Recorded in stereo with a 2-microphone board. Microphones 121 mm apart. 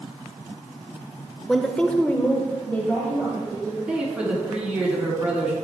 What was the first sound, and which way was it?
A woman speaking, centre (ahead or behind).